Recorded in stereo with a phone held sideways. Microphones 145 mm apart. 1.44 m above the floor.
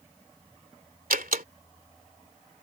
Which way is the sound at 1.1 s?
80° right.